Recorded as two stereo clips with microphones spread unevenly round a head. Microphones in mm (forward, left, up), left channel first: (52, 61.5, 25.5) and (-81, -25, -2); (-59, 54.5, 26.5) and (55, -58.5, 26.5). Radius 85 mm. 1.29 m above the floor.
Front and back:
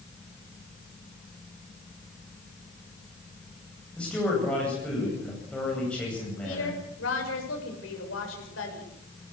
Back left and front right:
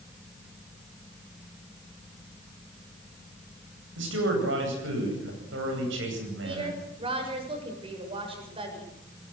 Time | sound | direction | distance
4.0 | a man speaking | 50° right | 9.5 m
6.4 | a woman speaking | 15° left | 6.5 m